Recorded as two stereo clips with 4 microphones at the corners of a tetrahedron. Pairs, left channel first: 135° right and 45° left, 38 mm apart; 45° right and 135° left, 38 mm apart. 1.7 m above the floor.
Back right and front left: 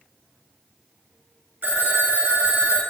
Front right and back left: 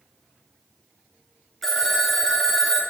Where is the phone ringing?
40° left, 1.1 m.